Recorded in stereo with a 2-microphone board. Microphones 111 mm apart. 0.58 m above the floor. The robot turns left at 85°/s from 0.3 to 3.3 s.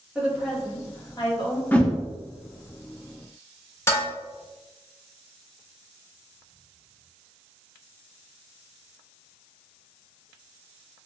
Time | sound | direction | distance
0.1 | a woman speaking | 165° right | 1.4 m
1.7 | a whoosh | 15° left (ahead or behind) | 0.6 m
3.9 | dishes clattering | 25° left (ahead or behind) | 1.0 m